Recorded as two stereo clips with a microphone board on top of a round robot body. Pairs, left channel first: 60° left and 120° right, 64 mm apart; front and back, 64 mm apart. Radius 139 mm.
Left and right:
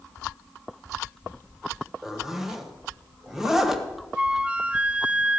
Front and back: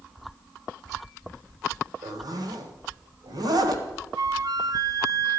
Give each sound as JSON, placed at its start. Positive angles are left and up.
{"t": 2.0, "sound": "a zipper", "azimuth_deg": 155, "distance_m": 1.5}
{"t": 4.2, "sound": "a flute", "azimuth_deg": 170, "distance_m": 0.8}